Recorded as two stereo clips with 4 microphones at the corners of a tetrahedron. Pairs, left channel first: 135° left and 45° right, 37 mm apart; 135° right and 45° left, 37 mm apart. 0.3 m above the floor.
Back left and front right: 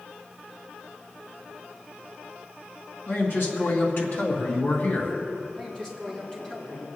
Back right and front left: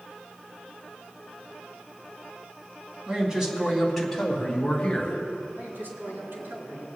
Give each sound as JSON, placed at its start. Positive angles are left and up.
{"t": 3.1, "sound": "a man speaking", "azimuth_deg": 115, "distance_m": 3.0}
{"t": 5.5, "sound": "a man speaking", "azimuth_deg": 65, "distance_m": 4.5}